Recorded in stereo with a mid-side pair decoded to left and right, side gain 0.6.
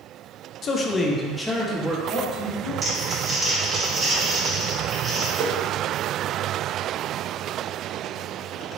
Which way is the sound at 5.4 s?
35° right.